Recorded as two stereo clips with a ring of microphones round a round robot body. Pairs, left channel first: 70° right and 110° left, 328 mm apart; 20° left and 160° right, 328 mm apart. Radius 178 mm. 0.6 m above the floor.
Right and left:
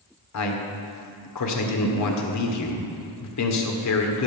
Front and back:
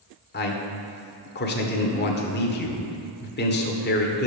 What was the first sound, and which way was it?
A man speaking, 35° right.